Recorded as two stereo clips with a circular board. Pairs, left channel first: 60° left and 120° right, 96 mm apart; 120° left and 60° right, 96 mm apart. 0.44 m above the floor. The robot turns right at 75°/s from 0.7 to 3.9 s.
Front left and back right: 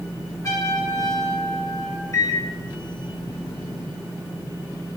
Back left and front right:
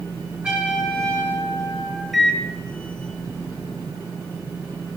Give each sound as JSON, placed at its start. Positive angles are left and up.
{"t": 0.4, "sound": "a trumpet", "azimuth_deg": 15, "distance_m": 2.5}
{"t": 2.1, "sound": "a microwave", "azimuth_deg": 30, "distance_m": 1.1}